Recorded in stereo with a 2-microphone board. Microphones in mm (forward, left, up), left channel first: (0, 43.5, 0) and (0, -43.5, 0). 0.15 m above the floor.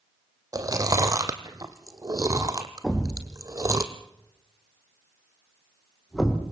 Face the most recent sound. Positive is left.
turn(degrees=5)  # may be behind; listen again after turning